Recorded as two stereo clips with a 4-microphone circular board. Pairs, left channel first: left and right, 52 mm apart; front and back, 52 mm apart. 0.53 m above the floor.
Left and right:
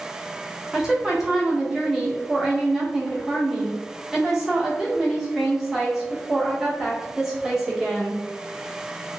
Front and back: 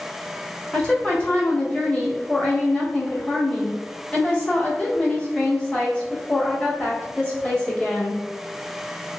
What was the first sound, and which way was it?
A woman speaking, 15° right.